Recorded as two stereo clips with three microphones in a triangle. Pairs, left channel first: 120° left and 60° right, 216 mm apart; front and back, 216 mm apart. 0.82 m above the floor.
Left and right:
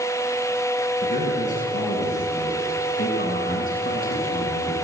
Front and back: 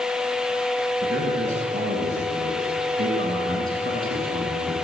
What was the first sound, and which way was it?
A man speaking, 125° left.